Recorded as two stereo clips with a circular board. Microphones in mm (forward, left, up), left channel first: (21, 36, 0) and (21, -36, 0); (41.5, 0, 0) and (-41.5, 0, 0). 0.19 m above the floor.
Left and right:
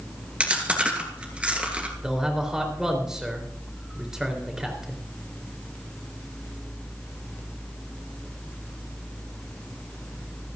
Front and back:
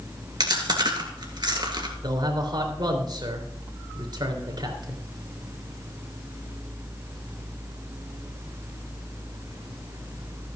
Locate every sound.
0.4 s chewing: 160° right, 2.5 m
2.0 s a man speaking: 170° right, 3.5 m